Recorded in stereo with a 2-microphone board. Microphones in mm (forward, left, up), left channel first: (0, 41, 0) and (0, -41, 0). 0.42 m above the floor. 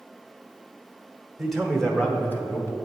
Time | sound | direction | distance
1.4 | a man speaking | centre (ahead or behind) | 0.9 m